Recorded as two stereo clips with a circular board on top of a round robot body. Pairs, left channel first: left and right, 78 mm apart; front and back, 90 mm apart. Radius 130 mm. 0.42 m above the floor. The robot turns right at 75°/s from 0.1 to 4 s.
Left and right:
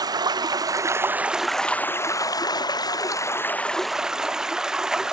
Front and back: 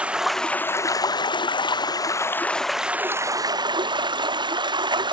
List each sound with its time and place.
0.0 s running water: 105° right, 0.8 m; by 5.1 s 170° right, 0.8 m